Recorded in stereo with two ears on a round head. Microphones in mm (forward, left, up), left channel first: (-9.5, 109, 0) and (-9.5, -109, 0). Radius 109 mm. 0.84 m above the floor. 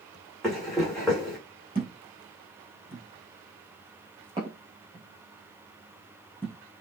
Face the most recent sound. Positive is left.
turn(degrees=-20)  # may be behind; listen again after turning